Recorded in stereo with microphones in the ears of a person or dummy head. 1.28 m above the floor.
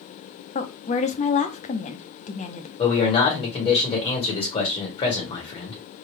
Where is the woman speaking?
35° left (ahead or behind), 0.5 m.